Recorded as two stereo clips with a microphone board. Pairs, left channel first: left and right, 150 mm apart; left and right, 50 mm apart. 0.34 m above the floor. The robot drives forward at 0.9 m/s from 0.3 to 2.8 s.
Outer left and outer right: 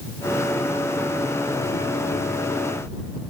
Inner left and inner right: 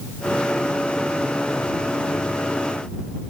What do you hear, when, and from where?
Only background noise.